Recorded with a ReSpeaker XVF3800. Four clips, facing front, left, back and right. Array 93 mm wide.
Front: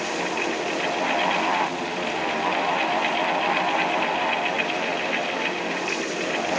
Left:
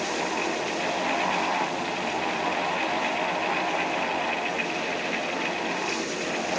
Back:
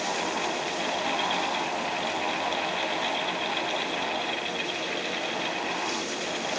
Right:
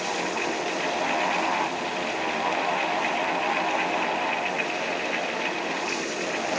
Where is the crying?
I don't hear crying.